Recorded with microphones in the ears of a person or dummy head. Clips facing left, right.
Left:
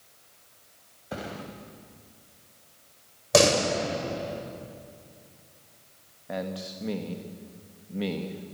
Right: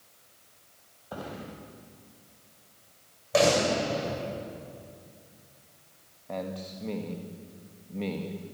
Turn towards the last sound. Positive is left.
turn(degrees=10)  # may be behind; listen again after turning